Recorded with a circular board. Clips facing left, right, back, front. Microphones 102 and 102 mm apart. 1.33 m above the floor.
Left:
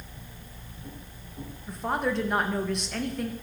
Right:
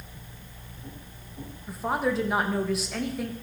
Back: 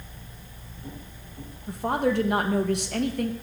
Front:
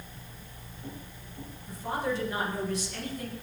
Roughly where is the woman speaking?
Behind.